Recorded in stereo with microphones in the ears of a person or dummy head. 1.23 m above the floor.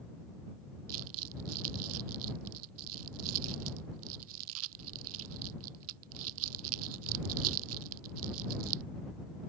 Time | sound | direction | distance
0.9 | crumpling | 80° right | ?